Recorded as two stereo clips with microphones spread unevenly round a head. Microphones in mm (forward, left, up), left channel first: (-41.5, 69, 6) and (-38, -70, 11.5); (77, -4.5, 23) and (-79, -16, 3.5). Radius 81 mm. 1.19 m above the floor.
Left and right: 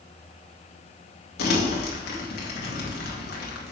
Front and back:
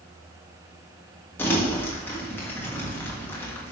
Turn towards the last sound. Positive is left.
turn(degrees=80)